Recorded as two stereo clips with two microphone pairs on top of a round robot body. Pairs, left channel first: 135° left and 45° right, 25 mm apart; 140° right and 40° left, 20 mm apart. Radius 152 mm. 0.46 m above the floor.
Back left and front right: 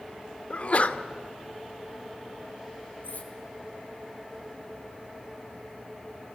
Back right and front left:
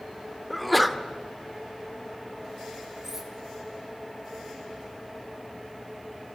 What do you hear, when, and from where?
0.5 s a sneeze: 135° left, 2.5 m
3.0 s cutlery clinking: 115° left, 6.5 m